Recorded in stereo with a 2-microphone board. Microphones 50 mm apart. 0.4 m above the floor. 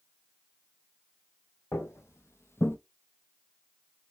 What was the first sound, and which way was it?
Footsteps, 60° left (ahead or behind).